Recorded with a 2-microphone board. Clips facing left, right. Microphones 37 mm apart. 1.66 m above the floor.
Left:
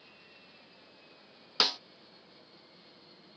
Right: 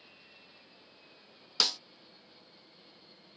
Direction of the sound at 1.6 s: 15° left (ahead or behind).